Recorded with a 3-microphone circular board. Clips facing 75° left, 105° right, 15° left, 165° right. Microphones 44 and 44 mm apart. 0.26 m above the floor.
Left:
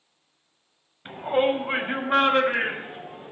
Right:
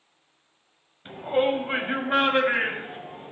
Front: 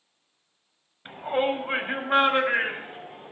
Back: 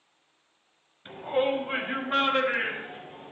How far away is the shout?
About 1.5 m.